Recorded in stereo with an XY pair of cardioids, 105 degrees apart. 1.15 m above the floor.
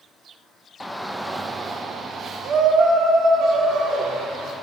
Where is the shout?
15° left, 0.6 m; by 4.5 s 75° right, 1.9 m.